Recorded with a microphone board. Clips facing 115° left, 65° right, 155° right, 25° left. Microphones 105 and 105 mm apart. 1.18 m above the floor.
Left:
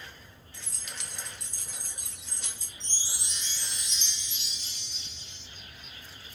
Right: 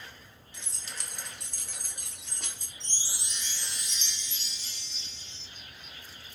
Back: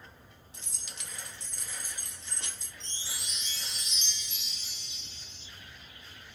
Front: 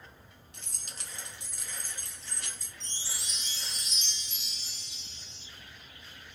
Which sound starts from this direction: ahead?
Keys jangling, at 0.5 s.